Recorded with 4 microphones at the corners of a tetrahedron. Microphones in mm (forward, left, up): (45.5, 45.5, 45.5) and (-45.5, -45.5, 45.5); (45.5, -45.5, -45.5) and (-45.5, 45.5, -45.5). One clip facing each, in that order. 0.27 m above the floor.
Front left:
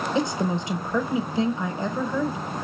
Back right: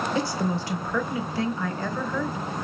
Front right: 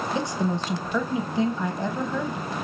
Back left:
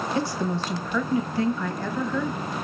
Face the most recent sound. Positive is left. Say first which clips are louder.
# front left 4 dB, even
turn(degrees=0)